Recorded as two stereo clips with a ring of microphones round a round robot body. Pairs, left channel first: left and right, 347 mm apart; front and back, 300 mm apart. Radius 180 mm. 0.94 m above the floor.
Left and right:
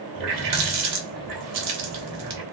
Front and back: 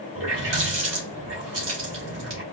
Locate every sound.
0.1 s a running tap: 125° right, 1.1 m